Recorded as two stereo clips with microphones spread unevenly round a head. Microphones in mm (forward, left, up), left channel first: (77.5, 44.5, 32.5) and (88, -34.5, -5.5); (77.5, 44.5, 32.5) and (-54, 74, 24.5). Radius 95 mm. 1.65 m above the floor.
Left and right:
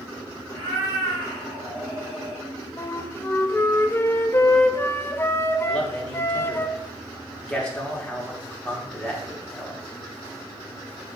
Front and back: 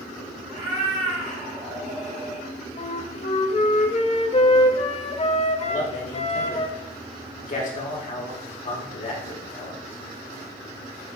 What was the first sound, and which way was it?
A cat meowing, 160° right.